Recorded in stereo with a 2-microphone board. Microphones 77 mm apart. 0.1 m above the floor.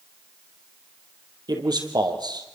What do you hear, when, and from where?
1.5 s a man speaking: 65° right (ahead or behind), 3.5 m